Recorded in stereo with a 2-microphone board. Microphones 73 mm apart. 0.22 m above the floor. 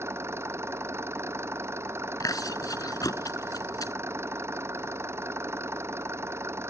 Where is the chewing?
55° left (ahead or behind).